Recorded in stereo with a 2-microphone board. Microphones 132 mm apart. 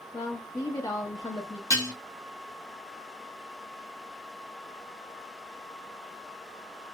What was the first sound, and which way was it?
A woman speaking, 25° left (ahead or behind).